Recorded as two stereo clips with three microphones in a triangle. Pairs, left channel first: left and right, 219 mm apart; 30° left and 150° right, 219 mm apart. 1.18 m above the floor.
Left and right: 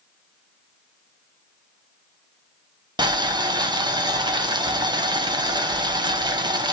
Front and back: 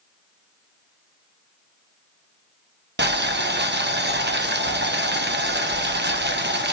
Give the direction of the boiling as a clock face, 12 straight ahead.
5 o'clock.